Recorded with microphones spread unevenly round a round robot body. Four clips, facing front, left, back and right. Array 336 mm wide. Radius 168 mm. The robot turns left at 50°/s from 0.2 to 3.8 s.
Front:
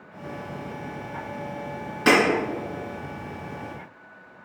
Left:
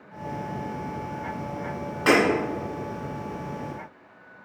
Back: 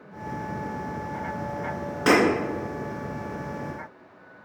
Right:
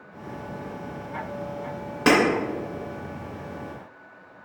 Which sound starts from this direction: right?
Breaking glass, at 2.1 s.